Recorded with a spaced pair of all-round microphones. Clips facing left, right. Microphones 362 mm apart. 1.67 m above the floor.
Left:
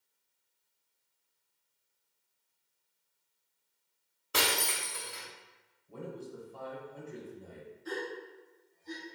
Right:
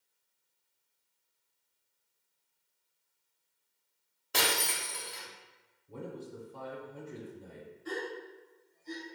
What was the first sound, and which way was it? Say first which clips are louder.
Breaking glass: even; 10° left (ahead or behind).